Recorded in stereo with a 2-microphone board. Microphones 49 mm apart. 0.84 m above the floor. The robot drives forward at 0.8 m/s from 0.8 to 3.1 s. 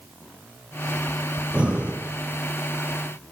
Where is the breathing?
20° right (ahead or behind), 3 m.